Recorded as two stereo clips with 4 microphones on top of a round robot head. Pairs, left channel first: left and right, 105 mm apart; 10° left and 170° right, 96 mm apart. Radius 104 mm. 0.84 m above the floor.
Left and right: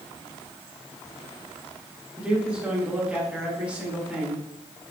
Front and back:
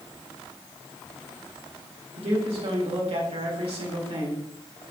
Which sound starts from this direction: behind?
A man speaking, at 2.2 s.